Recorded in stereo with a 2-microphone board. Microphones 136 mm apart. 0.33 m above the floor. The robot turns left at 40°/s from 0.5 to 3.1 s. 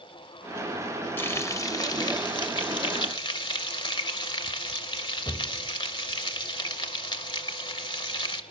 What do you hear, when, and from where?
1.2 s frying: 150° left, 1.3 m; by 8.4 s 75° left, 1.3 m